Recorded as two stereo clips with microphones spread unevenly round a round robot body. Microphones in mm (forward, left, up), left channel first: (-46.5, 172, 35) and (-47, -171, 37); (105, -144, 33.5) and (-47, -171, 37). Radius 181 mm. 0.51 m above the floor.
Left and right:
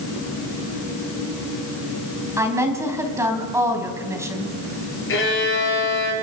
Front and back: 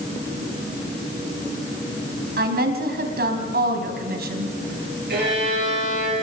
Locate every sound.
2.4 s a woman speaking: 170° right, 3.5 m
5.1 s a violin: 145° left, 8 m